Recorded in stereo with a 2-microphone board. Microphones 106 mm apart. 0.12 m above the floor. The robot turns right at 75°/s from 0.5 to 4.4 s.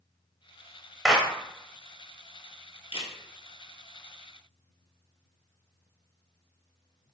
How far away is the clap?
About 0.9 m.